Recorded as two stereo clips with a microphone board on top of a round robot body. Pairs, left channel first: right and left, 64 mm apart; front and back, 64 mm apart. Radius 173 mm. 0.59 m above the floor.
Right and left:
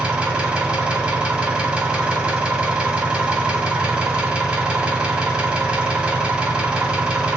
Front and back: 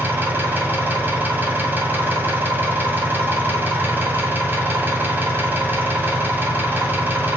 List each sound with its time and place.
0.0 s an engine running: 155° left, 1.0 m